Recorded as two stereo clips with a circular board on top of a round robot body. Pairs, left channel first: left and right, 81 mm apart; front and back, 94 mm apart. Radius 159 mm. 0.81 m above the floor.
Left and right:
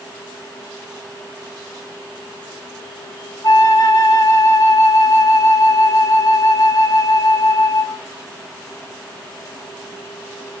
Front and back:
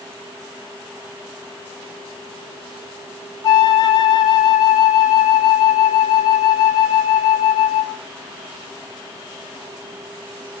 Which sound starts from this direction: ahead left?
A flute, at 3.4 s.